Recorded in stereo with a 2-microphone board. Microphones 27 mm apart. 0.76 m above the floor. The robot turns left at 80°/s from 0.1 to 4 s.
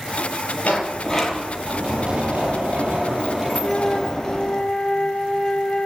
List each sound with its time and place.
0.6 s a sliding door: 60° left, 5.5 m; by 4.6 s 150° left, 5.5 m
3.6 s a flute: 155° left, 3 m; by 5.9 s 120° left, 3 m